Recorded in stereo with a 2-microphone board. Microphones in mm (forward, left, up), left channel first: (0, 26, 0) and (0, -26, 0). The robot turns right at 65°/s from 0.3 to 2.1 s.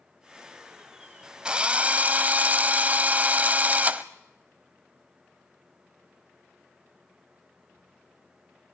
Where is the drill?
145° right, 0.9 m; by 4.0 s 105° right, 0.9 m.